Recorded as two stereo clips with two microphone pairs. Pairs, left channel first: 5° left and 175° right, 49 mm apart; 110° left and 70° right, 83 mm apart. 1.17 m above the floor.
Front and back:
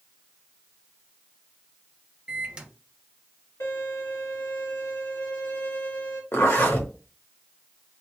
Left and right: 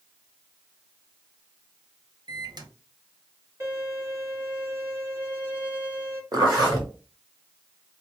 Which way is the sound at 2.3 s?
100° right.